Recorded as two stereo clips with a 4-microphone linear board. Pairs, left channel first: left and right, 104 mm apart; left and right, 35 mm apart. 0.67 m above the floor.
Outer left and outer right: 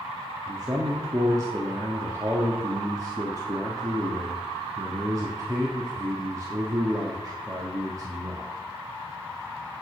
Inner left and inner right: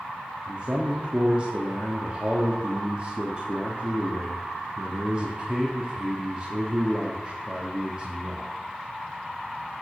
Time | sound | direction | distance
0.5 | a man speaking | 35° right (ahead or behind) | 1.3 m